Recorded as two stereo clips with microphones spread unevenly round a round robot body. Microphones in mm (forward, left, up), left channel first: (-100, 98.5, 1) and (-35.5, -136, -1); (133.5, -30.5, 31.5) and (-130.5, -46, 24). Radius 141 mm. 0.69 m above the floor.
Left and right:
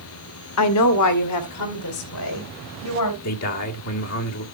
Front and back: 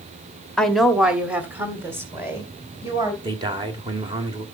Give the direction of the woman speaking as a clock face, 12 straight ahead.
9 o'clock.